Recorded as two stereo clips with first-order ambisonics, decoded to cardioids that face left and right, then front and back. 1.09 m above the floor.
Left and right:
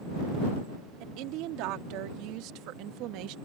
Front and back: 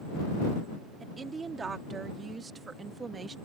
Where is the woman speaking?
110° right.